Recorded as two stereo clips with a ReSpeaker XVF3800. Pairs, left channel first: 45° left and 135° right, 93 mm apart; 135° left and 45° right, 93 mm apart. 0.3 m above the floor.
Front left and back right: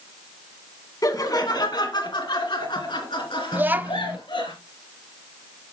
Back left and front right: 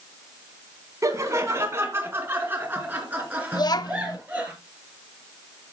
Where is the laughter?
5° left, 2 m; by 4.5 s 30° left, 4.5 m.